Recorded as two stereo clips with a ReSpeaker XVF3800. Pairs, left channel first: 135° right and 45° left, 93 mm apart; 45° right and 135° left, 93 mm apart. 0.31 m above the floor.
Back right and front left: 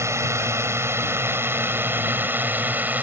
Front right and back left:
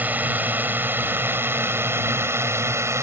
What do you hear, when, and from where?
0.0 s a drone: 75° left; by 3.0 s 100° left